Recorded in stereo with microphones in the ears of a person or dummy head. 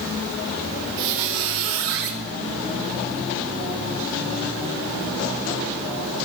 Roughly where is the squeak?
Right.